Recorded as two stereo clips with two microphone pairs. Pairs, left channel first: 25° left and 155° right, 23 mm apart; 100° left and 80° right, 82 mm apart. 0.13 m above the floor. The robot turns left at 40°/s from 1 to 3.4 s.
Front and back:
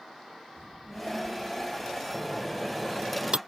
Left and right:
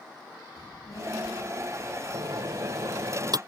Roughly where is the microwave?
Ahead right.